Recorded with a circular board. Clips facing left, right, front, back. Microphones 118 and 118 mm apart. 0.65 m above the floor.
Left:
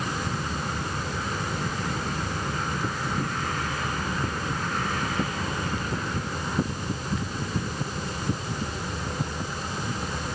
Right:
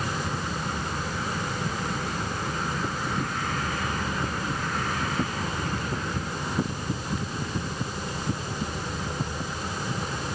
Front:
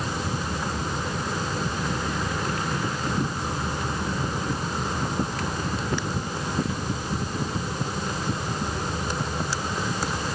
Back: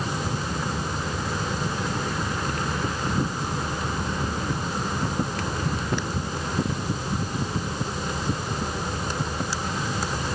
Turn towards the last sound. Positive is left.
No sound to turn to.